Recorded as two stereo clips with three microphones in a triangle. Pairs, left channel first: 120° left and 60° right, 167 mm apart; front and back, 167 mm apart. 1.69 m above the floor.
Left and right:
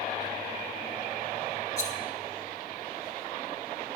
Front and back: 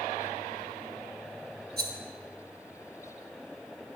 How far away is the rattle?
About 1.5 m.